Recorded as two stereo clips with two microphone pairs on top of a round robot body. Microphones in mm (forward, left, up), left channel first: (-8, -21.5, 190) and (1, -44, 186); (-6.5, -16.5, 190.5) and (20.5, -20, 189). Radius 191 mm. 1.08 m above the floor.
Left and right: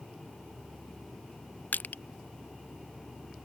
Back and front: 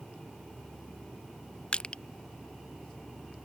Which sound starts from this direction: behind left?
Crushing, at 1.7 s.